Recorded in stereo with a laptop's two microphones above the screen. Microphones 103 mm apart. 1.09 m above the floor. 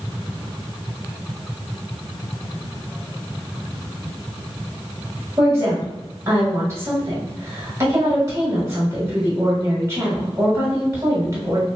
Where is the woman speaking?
30° right (ahead or behind), 1.4 m.